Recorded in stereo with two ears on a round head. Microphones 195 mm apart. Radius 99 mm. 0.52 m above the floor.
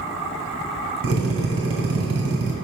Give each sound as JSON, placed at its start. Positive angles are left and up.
{"t": 1.0, "sound": "a drill", "side_deg": -65, "distance_m": 2.0}